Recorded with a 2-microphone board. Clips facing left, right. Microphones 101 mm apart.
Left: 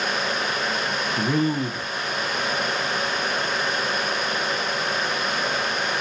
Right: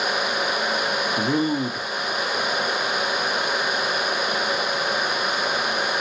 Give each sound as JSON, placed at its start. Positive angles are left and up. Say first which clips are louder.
{"t": 1.2, "sound": "a man speaking", "louder": "even", "side_deg": -15, "distance_m": 0.8}